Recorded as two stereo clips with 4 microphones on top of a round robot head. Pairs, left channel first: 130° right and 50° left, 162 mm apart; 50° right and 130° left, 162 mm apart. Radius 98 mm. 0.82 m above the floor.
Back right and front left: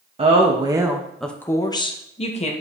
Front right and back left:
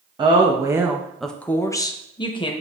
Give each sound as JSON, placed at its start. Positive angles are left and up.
{"t": 0.2, "sound": "a woman speaking", "azimuth_deg": 85, "distance_m": 1.1}